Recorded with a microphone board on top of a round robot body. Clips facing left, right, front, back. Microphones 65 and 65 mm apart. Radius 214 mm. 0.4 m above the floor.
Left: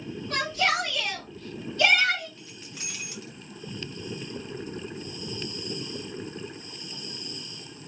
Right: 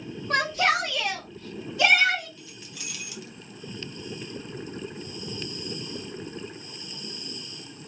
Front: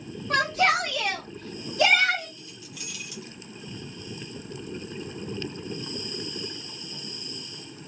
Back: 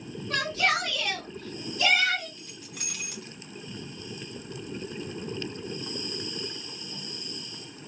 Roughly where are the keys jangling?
Behind left.